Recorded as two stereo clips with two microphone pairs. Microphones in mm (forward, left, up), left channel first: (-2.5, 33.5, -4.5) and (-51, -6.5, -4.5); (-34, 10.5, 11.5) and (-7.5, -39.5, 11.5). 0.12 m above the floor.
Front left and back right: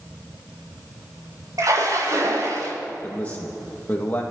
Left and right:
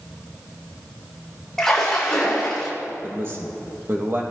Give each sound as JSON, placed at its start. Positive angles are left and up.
{"t": 1.6, "sound": "a splash", "azimuth_deg": -160, "distance_m": 6.5}
{"t": 3.0, "sound": "a man speaking", "azimuth_deg": -25, "distance_m": 3.5}